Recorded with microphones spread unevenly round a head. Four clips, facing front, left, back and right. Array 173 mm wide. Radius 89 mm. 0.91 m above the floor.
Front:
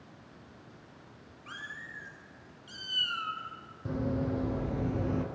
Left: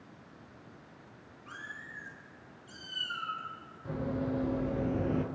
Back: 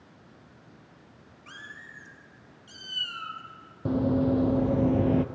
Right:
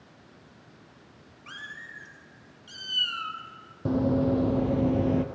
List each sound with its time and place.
1.5 s a cat meowing: 100° right, 3 m; by 3.4 s 90° right, 4 m
3.9 s running footsteps: 130° right, 2 m; by 5.2 s 170° right, 1.3 m